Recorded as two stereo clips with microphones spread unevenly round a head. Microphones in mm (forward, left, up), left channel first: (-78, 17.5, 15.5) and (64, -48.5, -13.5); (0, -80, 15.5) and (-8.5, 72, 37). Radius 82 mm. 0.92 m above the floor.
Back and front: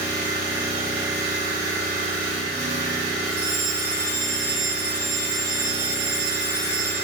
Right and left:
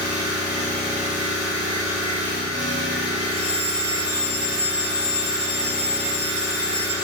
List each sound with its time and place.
0.0 s an engine running: 40° right, 3 m
3.3 s a fire alarm: 50° right, 3.5 m